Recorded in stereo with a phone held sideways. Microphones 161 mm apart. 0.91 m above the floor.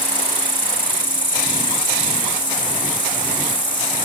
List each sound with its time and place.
0.0 s an insect: 30° left (ahead or behind)